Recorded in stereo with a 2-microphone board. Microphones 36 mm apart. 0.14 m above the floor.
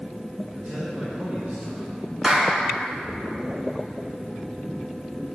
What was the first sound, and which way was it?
A man speaking, 50° right (ahead or behind).